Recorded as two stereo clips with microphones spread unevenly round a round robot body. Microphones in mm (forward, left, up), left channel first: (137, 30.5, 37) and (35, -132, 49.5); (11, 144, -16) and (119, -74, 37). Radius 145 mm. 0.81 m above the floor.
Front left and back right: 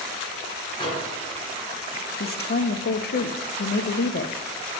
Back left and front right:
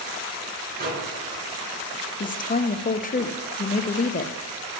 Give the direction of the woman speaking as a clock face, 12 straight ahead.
9 o'clock.